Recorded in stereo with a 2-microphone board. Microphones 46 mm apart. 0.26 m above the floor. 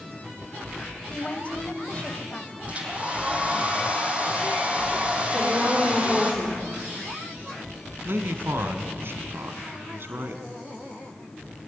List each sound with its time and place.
1.1 s a woman speaking: 30° left (ahead or behind), 1.4 m
2.7 s a hair dryer: 30° right (ahead or behind), 3.5 m
5.3 s a woman speaking: 25° right (ahead or behind), 8.5 m
8.1 s a man speaking: 60° right (ahead or behind), 2 m